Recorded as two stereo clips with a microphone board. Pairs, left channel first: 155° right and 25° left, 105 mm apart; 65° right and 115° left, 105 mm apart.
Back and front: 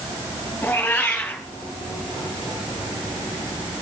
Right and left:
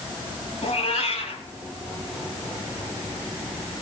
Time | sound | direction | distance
0.6 | a cat meowing | 85° right | 2.5 m